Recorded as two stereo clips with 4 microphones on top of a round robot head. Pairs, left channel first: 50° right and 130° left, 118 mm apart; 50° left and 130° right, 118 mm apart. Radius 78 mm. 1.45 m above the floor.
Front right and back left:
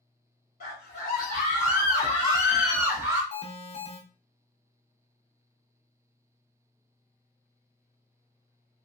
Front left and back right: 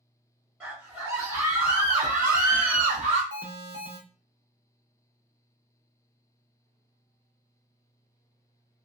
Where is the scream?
45° right, 1.3 m; by 3.2 s 170° right, 0.7 m.